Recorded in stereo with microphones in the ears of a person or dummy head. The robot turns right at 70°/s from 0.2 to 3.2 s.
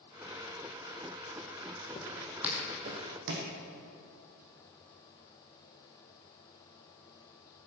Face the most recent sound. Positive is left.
turn(degrees=-55)  # may be behind; listen again after turning